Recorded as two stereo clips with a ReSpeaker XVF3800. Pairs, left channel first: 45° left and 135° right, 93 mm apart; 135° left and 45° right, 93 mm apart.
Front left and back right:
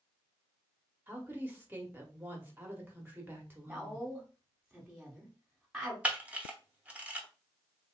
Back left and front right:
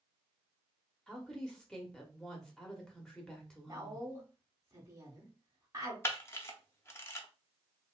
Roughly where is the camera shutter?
Behind.